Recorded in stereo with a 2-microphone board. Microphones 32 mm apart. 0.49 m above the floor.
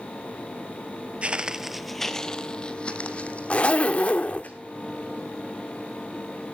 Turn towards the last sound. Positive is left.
turn(degrees=40)  # may be behind; listen again after turning